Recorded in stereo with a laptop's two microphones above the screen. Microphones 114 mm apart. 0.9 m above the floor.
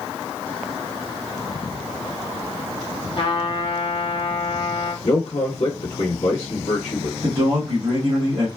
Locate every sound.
3.2 s a trumpet: 50° left (ahead or behind), 0.8 m
5.0 s a man speaking: 75° left (ahead or behind), 1.6 m
7.2 s a man speaking: 45° right (ahead or behind), 1.2 m